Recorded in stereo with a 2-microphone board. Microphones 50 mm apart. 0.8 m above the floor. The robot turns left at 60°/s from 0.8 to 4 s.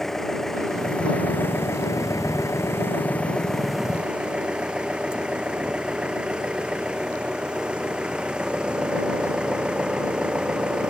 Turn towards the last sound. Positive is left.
turn(degrees=-20)